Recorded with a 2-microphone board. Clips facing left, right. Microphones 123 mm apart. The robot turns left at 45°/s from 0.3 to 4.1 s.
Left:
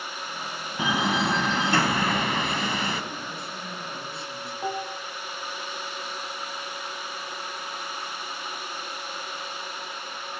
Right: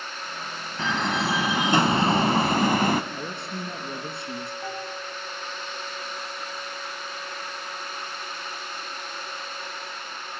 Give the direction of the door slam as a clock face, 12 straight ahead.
11 o'clock.